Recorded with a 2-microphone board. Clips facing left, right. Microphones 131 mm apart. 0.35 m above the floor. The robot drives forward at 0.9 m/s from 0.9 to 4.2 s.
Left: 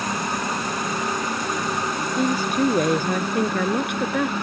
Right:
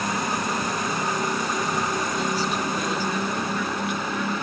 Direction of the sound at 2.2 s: 50° left (ahead or behind).